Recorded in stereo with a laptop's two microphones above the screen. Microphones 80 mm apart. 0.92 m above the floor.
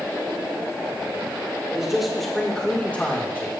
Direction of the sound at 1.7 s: 10° right (ahead or behind).